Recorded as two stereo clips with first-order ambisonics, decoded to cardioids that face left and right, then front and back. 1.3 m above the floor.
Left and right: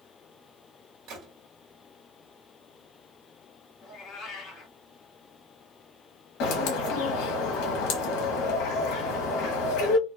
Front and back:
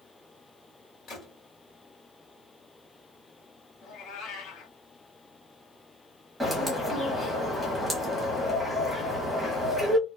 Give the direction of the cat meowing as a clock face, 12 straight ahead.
11 o'clock.